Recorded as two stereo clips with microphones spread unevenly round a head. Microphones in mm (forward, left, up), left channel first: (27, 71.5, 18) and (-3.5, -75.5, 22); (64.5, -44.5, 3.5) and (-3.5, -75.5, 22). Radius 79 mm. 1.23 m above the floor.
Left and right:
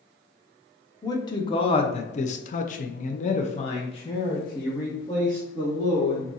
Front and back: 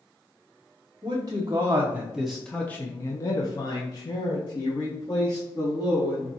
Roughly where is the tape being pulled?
No tape being pulled in this recording.